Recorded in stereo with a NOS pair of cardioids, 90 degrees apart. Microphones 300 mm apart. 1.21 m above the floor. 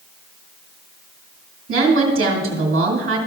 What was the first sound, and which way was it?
A woman speaking, 45° right.